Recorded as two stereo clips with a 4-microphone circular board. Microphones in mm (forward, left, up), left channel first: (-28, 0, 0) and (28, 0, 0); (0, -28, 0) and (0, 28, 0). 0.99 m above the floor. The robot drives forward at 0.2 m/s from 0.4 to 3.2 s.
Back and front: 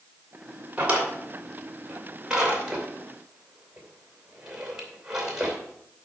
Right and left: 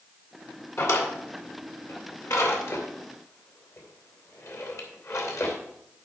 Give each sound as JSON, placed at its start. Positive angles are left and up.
{"t": 0.8, "sound": "a drawer", "azimuth_deg": -65, "distance_m": 2.5}